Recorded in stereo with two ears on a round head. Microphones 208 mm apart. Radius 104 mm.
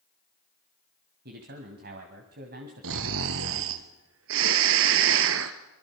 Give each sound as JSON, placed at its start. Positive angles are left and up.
{"t": 1.2, "sound": "a man speaking", "side_deg": -45, "distance_m": 2.5}
{"t": 2.8, "sound": "snoring", "side_deg": -60, "distance_m": 1.5}